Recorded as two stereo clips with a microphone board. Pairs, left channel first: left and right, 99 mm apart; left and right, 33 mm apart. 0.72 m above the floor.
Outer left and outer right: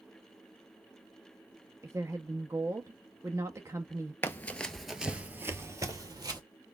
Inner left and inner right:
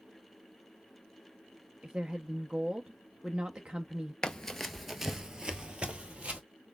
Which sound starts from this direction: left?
Running footsteps, at 4.2 s.